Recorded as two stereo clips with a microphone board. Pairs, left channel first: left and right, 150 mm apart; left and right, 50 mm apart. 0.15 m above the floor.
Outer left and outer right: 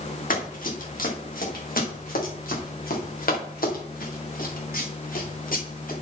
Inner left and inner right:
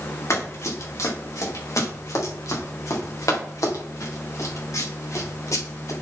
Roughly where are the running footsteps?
Left.